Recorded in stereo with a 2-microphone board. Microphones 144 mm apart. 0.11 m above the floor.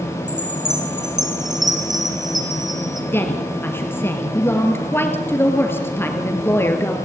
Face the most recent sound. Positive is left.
turn(degrees=15)  # may be behind; listen again after turning